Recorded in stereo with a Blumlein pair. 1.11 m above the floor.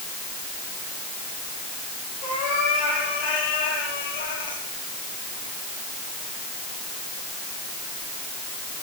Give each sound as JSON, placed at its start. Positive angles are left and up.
{"t": 2.2, "sound": "a cat meowing", "azimuth_deg": 35, "distance_m": 7.5}